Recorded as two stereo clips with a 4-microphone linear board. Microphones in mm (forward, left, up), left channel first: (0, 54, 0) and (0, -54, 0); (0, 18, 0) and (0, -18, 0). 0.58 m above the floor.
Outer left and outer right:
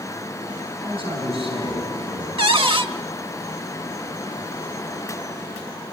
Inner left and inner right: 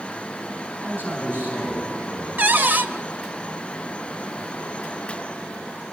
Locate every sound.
0.8 s a man speaking: 55° right (ahead or behind), 5 m
2.4 s a cupboard door: 55° right (ahead or behind), 0.8 m